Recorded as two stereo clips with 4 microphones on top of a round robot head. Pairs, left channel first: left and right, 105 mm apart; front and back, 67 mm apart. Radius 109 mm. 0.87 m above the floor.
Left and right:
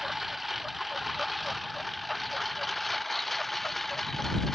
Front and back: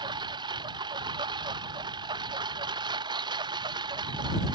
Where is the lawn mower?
Straight behind.